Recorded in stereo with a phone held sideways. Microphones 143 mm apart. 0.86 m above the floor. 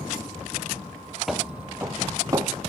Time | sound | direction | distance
1.3 | footsteps | centre (ahead or behind) | 0.9 m